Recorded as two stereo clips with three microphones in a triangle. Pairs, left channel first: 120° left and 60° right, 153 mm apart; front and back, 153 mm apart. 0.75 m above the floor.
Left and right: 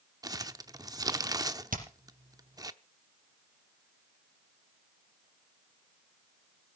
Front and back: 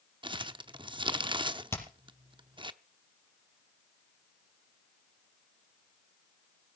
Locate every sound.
0.2 s crumpling: 120° right, 0.7 m
1.7 s hammering: 70° right, 4.5 m